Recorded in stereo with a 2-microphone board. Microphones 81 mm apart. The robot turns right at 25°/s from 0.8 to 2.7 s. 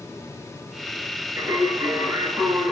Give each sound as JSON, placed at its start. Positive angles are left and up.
{"t": 1.4, "sound": "singing", "azimuth_deg": -75, "distance_m": 2.0}